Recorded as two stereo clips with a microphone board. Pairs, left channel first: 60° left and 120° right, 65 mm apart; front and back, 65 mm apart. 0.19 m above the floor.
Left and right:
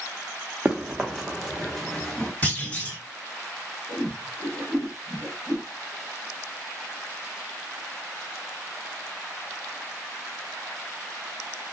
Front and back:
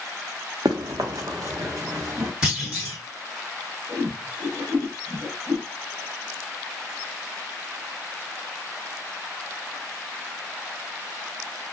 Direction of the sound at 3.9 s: 135° left.